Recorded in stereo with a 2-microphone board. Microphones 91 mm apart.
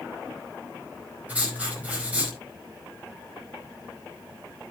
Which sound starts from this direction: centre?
Writing, at 1.3 s.